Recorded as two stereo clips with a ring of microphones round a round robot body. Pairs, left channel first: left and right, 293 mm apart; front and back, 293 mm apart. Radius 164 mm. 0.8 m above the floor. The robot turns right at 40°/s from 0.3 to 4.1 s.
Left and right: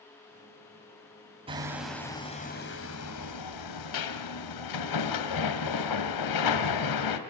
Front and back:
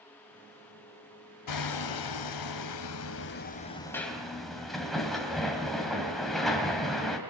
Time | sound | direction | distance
1.5 | hammering | 15° right | 3 m